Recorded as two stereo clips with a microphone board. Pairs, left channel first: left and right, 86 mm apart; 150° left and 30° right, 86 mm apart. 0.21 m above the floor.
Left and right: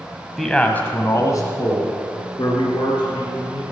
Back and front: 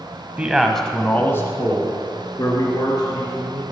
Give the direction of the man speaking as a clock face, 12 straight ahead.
12 o'clock.